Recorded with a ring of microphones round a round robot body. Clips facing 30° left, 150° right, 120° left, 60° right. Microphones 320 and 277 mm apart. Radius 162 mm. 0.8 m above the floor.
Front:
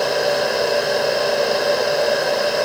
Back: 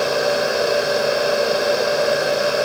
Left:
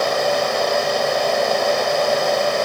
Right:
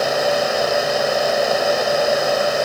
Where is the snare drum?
I don't hear a snare drum.